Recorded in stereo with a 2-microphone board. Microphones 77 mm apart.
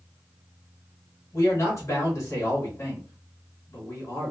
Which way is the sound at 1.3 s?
40° left (ahead or behind).